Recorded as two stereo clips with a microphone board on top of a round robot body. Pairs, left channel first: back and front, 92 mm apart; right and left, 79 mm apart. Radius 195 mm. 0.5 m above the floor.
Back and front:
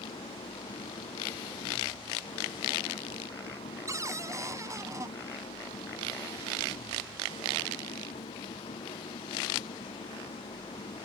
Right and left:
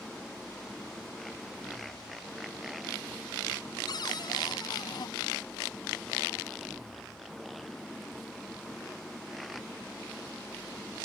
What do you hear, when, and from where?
0.0 s an engine running: 175° right
3.9 s a cupboard door: 55° right